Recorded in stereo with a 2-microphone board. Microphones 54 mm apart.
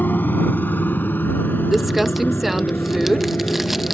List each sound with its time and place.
0.0 s a motorcycle: 35° left (ahead or behind); by 4.0 s 40° left (ahead or behind)
1.7 s crumpling: 5° right (ahead or behind)